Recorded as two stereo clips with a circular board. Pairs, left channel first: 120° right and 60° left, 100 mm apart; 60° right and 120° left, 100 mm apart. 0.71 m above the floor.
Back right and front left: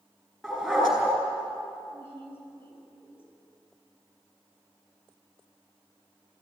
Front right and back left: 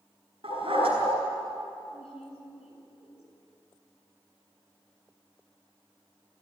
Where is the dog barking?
150° left, 5 m.